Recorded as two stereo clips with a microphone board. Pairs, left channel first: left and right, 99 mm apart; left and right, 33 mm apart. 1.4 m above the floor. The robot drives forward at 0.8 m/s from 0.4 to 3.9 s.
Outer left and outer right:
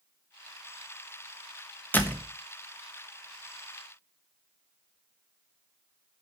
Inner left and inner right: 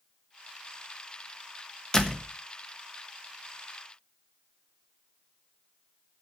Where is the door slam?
20° left (ahead or behind), 1.2 m; by 2.3 s 25° left (ahead or behind), 0.9 m.